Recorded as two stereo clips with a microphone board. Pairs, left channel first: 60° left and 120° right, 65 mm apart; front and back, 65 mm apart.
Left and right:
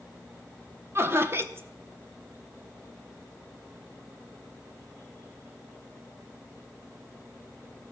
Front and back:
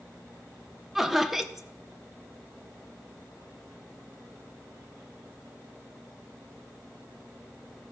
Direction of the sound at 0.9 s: 95° right.